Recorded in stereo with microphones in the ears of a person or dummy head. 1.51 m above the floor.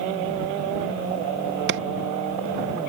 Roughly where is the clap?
Right.